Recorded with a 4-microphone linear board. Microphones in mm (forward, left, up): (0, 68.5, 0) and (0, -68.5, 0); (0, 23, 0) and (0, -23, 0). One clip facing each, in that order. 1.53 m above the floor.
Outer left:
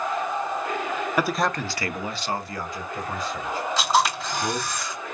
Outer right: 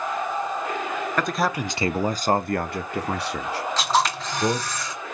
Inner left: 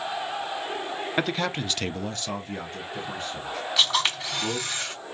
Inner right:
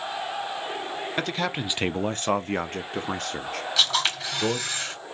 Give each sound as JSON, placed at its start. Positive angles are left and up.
{"t": 1.2, "sound": "a man speaking", "side_deg": 10, "distance_m": 0.6}
{"t": 3.8, "sound": "a camera shutter", "side_deg": 5, "distance_m": 3.0}